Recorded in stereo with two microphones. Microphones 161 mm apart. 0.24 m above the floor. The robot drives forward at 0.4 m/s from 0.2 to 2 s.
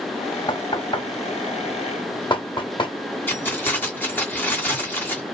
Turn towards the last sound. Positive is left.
turn(degrees=15)  # may be behind; listen again after turning